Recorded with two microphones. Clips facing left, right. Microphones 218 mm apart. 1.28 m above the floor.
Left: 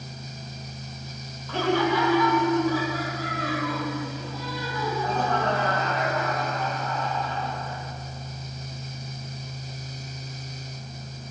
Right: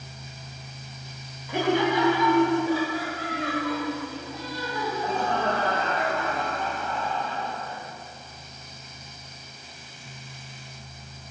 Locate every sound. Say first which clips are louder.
1.5 s laughter: even; 15° right (ahead or behind), 1.0 m; by 7.8 s 30° right (ahead or behind), 7 m